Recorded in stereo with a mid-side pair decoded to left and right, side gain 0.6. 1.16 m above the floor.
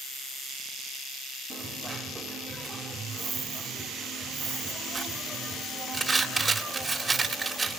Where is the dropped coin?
20° right, 2 m.